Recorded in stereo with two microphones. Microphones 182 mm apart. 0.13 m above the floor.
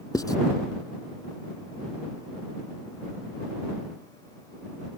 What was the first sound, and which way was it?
Writing, 20° left (ahead or behind).